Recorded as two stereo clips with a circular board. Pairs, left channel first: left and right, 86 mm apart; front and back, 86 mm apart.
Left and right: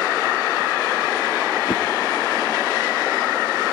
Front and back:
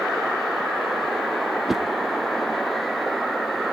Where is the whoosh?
95° left, 0.9 m.